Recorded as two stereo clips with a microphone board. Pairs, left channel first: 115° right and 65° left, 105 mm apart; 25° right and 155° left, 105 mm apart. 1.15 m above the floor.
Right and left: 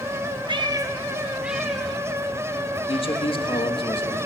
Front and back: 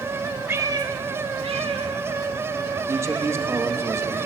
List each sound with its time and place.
0.5 s a cat meowing: 90° left, 0.9 m; by 3.4 s 170° left, 4 m
2.9 s a man speaking: 140° right, 1.8 m